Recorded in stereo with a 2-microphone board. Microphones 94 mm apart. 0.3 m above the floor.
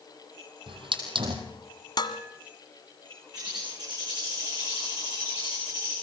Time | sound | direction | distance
0.7 | a hiss | 65° right (ahead or behind) | 3.5 m
2.0 | dishes clattering | 50° left (ahead or behind) | 1.5 m
3.3 | a bird | 45° right (ahead or behind) | 10 m